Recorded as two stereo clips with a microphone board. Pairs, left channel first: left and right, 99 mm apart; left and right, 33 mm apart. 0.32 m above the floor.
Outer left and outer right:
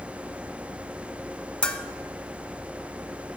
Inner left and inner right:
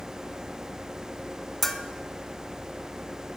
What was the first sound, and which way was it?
A bell, 10° left (ahead or behind).